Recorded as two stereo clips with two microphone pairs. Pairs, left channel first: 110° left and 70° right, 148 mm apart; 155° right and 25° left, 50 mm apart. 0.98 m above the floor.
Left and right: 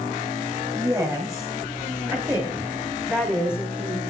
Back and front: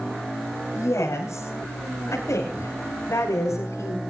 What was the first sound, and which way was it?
A woman speaking, 135° right.